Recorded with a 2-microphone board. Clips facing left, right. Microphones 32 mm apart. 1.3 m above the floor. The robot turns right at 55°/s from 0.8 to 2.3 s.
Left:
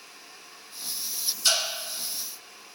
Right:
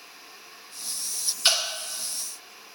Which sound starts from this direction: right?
Dripping, at 1.4 s.